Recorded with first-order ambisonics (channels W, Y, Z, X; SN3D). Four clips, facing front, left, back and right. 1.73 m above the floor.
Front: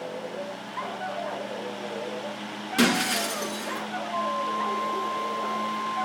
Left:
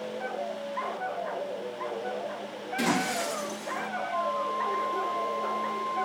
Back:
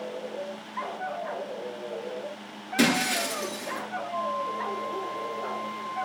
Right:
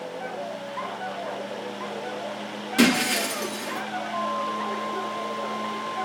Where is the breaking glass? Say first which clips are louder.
Right 7 dB, front 1 dB; 45° right, 8.5 m.